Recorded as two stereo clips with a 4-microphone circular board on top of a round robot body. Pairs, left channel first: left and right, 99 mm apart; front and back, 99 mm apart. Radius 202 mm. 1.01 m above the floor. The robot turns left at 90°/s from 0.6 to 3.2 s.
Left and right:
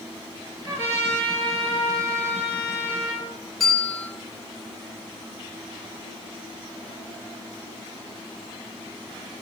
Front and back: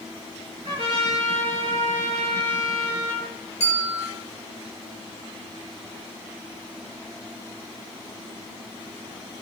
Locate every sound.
0.7 s a trumpet: 140° right, 5.5 m; by 3.3 s 10° right, 5.5 m
3.6 s a bell: straight ahead, 3 m